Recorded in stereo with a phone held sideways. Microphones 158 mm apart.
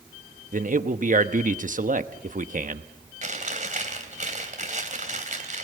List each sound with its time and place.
0.5 s a man speaking: 55° right (ahead or behind), 1.1 m
3.2 s chewing: 50° right (ahead or behind), 3 m